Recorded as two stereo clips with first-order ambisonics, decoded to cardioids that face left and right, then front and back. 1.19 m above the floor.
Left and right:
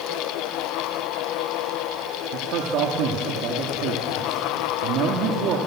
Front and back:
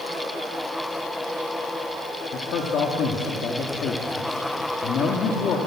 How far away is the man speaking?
About 2.5 m.